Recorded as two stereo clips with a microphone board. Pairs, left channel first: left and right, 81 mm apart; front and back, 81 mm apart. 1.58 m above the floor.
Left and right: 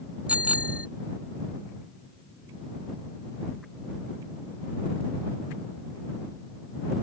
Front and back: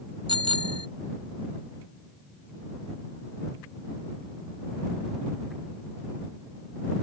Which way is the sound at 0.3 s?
165° right.